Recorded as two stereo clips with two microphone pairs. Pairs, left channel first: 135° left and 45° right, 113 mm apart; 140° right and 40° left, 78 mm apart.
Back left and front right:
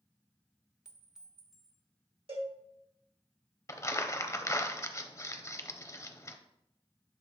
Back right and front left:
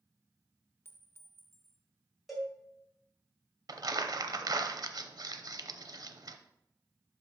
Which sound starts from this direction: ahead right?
A cowbell, at 2.3 s.